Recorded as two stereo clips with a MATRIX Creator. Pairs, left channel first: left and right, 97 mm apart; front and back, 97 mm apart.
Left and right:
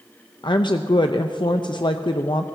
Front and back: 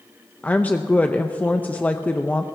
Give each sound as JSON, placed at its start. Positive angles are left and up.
{"t": 0.4, "sound": "a woman speaking", "azimuth_deg": 70, "distance_m": 0.6}